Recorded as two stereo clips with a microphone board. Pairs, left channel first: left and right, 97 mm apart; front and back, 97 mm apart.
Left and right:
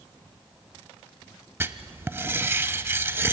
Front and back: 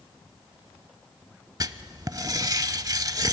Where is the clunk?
I don't hear a clunk.